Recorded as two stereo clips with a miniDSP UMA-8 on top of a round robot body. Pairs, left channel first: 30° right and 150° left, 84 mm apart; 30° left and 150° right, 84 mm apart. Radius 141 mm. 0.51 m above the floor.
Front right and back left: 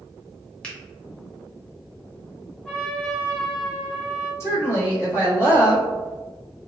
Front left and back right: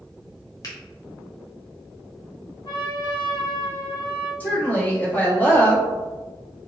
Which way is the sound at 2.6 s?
40° left.